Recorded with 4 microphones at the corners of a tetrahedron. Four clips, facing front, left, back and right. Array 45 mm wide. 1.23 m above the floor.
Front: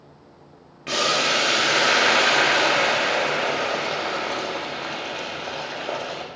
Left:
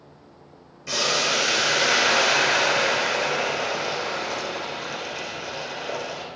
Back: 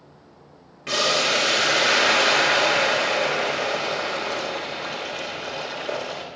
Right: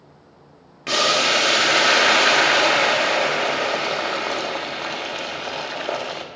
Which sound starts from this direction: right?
Boiling, at 0.9 s.